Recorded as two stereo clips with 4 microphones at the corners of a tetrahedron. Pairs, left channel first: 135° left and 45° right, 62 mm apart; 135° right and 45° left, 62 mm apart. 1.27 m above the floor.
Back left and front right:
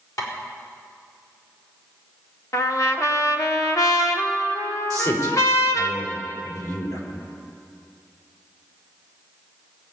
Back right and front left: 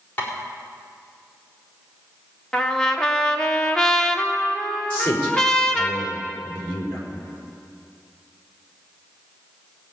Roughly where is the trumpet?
Behind left.